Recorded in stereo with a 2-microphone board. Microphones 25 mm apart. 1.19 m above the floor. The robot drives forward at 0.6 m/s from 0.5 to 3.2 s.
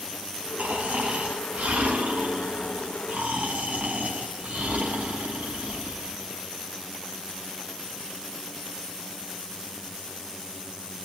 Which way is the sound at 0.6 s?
85° right.